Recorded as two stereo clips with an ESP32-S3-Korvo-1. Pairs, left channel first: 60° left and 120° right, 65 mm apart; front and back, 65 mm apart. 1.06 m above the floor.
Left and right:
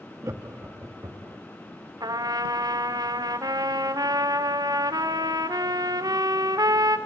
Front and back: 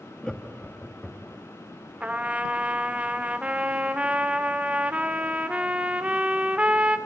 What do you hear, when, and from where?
0.2 s laughter: 75° right, 1.7 m; by 1.4 s 85° right, 2.5 m
2.0 s a trumpet: 110° right, 1.8 m